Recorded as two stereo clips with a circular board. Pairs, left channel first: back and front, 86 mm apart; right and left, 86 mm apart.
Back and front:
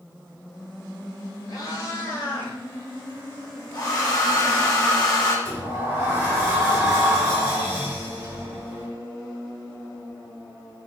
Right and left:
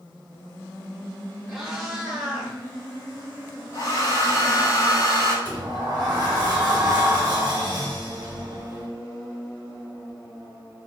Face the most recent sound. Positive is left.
turn(degrees=55)